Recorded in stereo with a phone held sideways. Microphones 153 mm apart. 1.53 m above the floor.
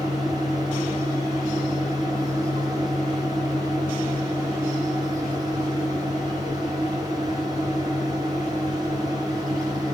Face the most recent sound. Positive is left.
turn(degrees=-25)  # may be behind; listen again after turning